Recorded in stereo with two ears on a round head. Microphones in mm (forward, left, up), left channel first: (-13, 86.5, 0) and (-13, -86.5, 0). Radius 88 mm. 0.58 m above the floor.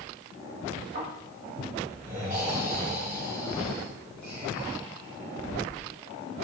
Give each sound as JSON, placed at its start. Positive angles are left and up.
{"t": 0.9, "sound": "snoring", "side_deg": -40, "distance_m": 1.2}